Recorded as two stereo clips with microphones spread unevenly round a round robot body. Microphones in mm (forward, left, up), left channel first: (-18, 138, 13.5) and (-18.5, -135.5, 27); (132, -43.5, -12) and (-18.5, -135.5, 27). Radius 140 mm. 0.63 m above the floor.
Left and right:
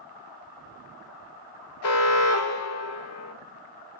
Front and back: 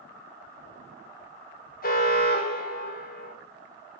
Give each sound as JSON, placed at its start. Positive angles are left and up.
{"t": 1.8, "sound": "an alarm", "azimuth_deg": 65, "distance_m": 1.4}